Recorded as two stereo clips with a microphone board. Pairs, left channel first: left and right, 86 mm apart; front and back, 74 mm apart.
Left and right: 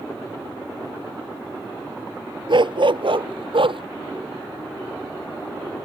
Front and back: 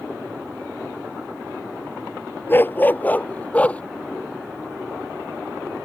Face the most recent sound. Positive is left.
turn(degrees=-75)